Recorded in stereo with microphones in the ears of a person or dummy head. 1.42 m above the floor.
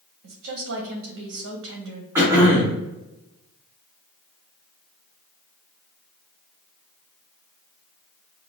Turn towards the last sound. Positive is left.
turn(degrees=-15)  # may be behind; listen again after turning